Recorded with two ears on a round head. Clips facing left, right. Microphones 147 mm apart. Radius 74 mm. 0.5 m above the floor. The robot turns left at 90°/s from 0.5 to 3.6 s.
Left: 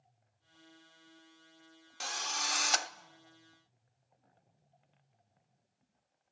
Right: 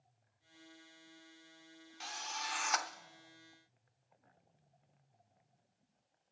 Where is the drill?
105° left, 0.6 m; by 2.9 s 25° left, 0.6 m.